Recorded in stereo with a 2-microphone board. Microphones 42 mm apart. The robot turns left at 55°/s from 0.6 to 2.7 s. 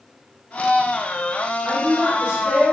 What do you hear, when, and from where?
1.6 s a woman speaking: 10° right (ahead or behind), 1.7 m; by 2.7 s 25° right (ahead or behind), 1.7 m